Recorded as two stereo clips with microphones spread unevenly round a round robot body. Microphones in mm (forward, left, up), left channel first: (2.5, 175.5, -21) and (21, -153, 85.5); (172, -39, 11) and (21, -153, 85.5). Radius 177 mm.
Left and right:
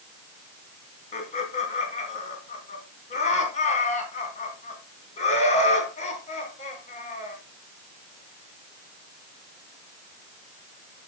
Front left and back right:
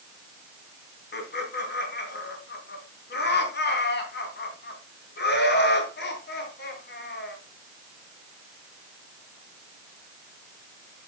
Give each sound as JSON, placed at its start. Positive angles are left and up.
{"t": 1.1, "sound": "laughter", "azimuth_deg": 30, "distance_m": 3.0}